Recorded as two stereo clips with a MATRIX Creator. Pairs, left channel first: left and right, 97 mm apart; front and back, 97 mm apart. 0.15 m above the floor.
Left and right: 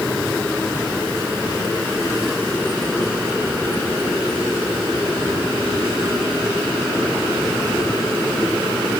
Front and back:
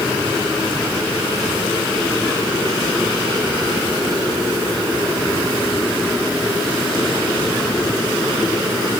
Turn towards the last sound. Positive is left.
No sound to turn to.